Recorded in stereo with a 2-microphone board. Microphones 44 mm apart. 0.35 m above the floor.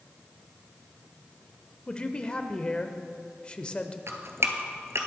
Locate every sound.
1.9 s a man speaking: 25° left (ahead or behind), 0.8 m
4.1 s dripping: 85° right, 1.2 m